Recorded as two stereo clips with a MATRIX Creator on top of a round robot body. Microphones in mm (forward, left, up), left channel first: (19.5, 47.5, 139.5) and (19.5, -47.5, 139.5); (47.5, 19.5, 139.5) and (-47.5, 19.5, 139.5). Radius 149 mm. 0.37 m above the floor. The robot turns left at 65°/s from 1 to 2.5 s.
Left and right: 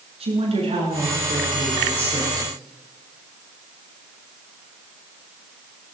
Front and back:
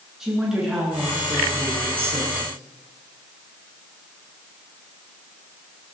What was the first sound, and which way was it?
A woman speaking, 95° right.